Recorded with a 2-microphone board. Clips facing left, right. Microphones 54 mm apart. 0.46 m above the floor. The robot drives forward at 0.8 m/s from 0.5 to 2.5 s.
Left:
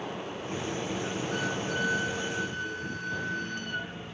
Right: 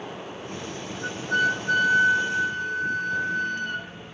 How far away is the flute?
About 1.0 m.